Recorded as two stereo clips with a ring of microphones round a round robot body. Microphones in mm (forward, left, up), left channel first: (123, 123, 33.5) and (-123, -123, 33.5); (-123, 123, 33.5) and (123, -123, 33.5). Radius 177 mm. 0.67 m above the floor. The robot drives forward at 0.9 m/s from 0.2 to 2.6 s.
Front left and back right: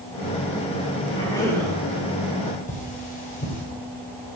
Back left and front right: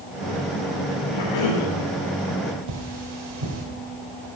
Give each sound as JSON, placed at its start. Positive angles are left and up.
{"t": 1.1, "sound": "a cough", "azimuth_deg": 120, "distance_m": 3.0}
{"t": 2.7, "sound": "cutlery clinking", "azimuth_deg": -25, "distance_m": 2.0}